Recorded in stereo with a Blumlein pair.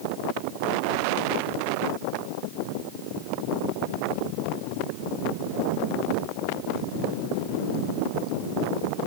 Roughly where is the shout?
No shout in this recording.